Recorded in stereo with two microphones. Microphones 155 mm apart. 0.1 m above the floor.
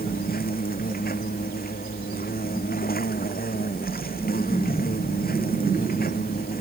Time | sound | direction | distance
0.0 | an insect | 80° left | ?